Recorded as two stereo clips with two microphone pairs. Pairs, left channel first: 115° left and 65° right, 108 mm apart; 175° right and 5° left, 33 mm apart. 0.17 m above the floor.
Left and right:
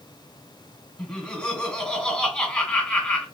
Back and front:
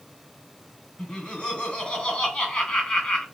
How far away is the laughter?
About 1.6 m.